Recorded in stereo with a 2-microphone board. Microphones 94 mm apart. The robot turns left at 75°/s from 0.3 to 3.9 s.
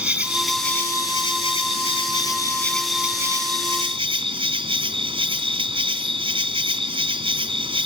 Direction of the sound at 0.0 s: 165° right.